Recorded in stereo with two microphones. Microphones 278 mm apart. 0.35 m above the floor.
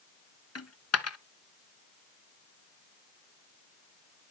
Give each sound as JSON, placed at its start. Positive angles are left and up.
{"t": 0.6, "sound": "a dropped coin", "side_deg": 60, "distance_m": 0.7}